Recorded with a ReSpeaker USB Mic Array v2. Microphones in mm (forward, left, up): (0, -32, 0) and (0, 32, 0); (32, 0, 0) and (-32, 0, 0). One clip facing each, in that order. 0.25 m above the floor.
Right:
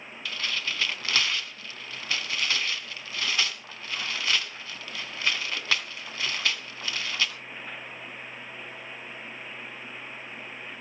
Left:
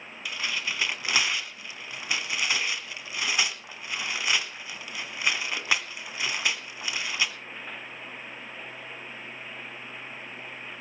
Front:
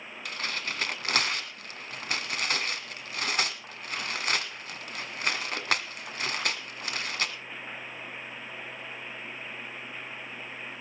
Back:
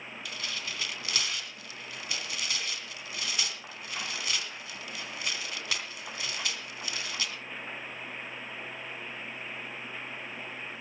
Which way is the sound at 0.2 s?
20° left.